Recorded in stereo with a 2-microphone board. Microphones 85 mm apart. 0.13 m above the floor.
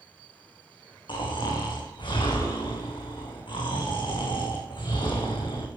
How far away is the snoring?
About 3 m.